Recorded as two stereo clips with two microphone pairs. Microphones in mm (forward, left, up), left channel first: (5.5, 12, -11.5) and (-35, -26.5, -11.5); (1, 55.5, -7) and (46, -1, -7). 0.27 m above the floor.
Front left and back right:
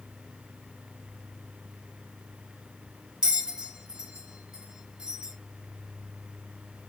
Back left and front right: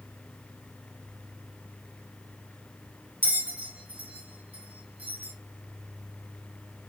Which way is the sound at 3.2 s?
80° right.